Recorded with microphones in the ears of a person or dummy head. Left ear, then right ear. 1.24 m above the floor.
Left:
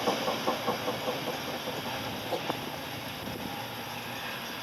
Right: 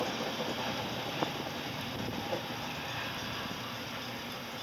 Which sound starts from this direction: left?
A whoosh, at 2.3 s.